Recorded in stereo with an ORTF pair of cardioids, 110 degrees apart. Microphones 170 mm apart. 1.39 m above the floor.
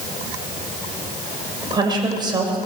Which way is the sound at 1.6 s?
25° right.